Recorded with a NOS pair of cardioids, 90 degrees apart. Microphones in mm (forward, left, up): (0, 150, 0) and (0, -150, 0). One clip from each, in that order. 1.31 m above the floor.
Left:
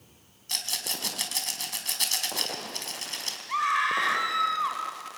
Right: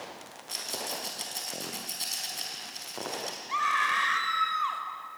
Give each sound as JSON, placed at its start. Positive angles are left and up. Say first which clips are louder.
{"t": 0.5, "sound": "a rattle", "louder": "left 4 dB", "azimuth_deg": 55, "distance_m": 4.5}
{"t": 3.5, "sound": "a scream", "louder": "left 1 dB", "azimuth_deg": 10, "distance_m": 6.0}